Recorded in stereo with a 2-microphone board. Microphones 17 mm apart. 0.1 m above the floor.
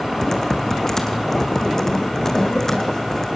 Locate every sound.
0.2 s typing on a keyboard: 35° left (ahead or behind), 2.5 m